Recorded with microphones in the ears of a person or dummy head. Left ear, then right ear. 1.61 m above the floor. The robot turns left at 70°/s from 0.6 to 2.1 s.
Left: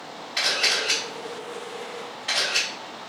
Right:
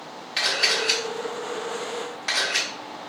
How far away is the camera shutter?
About 1.4 m.